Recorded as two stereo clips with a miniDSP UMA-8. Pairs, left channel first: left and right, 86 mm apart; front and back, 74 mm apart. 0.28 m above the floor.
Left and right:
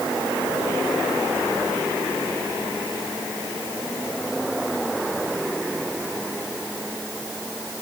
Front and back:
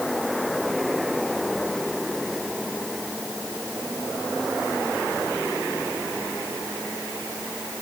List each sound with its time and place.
Only background noise.